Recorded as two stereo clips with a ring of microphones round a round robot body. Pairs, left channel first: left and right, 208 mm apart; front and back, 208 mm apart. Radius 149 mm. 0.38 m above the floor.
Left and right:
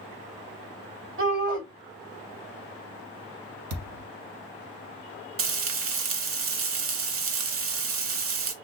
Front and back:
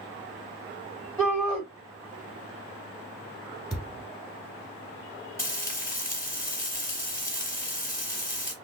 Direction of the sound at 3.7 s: 90° right.